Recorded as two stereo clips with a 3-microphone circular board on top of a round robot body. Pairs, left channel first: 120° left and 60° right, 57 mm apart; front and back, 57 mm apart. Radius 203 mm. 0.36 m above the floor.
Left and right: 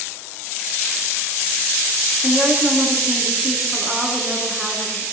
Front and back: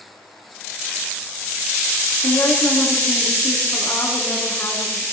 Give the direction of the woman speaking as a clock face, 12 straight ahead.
11 o'clock.